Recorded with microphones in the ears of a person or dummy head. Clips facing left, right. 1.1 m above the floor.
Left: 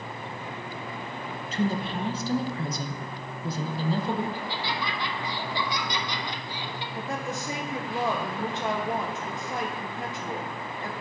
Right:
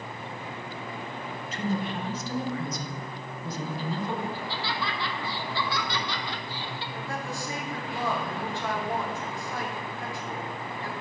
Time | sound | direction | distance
1.5 | a woman speaking | 30° left (ahead or behind) | 0.6 m
4.3 | laughter | 15° left (ahead or behind) | 0.9 m
7.0 | a woman speaking | 20° left (ahead or behind) | 0.7 m